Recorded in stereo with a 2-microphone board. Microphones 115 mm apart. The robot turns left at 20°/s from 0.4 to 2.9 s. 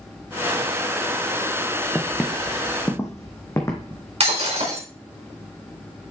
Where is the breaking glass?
60° right (ahead or behind), 4 m.